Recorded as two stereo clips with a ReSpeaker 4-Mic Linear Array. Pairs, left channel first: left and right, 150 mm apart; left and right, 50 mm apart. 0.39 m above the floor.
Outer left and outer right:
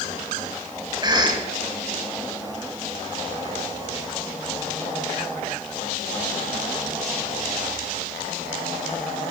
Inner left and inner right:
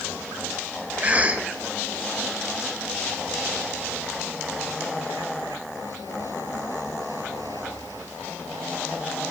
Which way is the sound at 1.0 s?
30° right (ahead or behind).